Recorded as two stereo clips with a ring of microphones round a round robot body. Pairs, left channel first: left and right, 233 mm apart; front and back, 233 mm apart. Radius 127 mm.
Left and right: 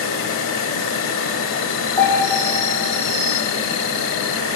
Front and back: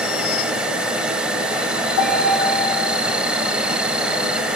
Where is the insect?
95° left, 1.4 m.